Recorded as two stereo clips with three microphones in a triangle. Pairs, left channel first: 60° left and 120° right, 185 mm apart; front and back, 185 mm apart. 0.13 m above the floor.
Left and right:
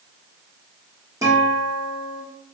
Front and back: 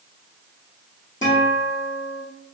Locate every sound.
1.2 s a guitar: 45° right, 1.6 m